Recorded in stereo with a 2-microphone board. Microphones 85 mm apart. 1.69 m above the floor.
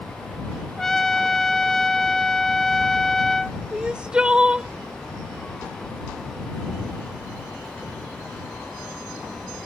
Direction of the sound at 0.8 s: 5° left (ahead or behind).